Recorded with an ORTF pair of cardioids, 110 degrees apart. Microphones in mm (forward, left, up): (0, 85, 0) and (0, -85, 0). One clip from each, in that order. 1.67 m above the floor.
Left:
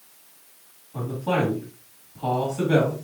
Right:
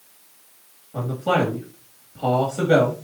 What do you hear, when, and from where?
0.9 s a man speaking: 40° right, 3 m